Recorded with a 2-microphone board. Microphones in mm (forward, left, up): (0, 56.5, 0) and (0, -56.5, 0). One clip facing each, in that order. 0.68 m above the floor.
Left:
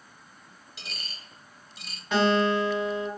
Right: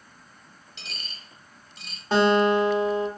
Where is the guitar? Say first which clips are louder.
Right 4 dB; 35° right (ahead or behind), 1.2 m.